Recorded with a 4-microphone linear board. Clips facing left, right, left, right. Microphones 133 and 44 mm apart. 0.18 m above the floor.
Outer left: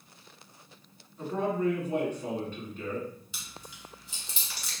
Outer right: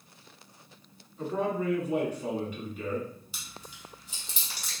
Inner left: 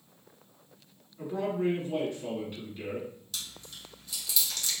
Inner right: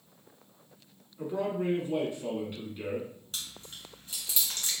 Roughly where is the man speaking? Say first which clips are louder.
Outer left 1 dB, inner left 1 dB; centre.